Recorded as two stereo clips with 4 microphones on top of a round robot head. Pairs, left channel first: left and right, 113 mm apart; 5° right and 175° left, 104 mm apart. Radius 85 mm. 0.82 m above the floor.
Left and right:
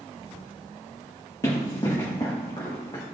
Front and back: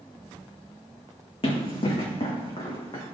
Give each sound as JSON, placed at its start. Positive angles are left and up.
{"t": 1.4, "sound": "running footsteps", "azimuth_deg": 25, "distance_m": 4.0}